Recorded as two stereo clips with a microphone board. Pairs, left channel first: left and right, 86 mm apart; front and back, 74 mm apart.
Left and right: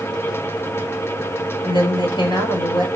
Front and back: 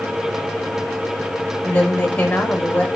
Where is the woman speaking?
75° left, 5 m.